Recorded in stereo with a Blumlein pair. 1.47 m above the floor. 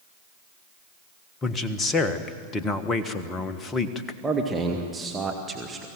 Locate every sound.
1.4 s a man speaking: 20° left, 1.4 m
4.2 s a man speaking: 15° right, 1.7 m